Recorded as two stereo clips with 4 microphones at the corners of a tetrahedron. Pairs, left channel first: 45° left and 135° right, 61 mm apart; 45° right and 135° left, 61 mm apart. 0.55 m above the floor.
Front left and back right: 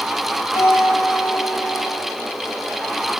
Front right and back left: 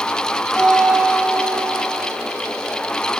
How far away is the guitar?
About 2.5 m.